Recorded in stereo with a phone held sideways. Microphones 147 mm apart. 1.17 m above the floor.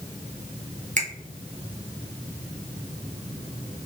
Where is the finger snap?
55° right (ahead or behind), 0.9 m.